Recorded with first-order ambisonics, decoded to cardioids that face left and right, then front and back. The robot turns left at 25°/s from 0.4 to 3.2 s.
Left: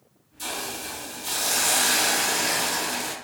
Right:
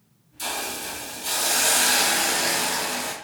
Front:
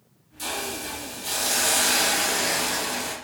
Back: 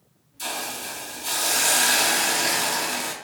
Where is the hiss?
100° right, 0.5 m; by 3.1 s 165° right, 0.5 m.